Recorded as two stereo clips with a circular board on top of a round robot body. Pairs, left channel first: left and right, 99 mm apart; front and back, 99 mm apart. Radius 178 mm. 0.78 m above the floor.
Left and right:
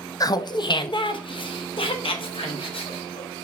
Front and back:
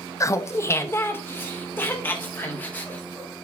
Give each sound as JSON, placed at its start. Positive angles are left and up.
{"t": 0.2, "sound": "laughter", "azimuth_deg": 50, "distance_m": 0.6}